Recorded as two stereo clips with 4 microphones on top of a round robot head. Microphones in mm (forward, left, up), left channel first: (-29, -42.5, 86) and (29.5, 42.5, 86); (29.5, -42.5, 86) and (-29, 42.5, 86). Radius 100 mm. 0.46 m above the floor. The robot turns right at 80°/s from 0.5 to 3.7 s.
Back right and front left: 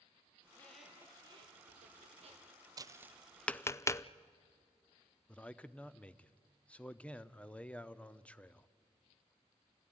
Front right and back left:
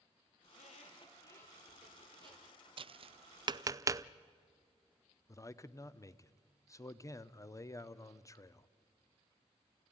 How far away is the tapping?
About 0.5 m.